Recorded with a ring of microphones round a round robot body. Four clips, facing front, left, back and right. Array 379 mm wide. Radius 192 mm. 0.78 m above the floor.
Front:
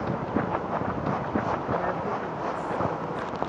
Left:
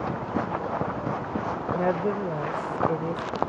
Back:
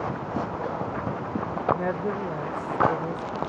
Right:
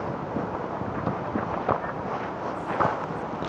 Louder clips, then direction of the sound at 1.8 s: Left 5 dB, even; 115° left.